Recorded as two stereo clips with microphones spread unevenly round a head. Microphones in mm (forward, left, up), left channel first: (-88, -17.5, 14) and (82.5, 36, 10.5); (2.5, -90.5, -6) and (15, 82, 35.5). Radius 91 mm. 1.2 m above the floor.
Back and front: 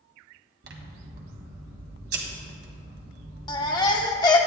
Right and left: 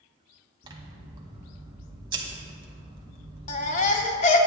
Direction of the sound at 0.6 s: 35° left.